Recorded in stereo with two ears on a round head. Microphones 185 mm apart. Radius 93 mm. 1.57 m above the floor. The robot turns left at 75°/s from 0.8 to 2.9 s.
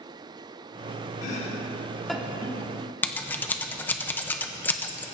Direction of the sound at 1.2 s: 40° left (ahead or behind).